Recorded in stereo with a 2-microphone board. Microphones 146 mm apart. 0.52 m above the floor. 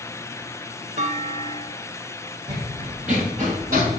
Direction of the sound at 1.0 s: 65° right (ahead or behind).